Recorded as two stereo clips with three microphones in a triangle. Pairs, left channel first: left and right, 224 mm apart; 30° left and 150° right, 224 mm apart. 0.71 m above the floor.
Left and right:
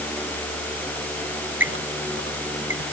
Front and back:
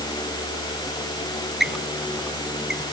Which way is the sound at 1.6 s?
60° right.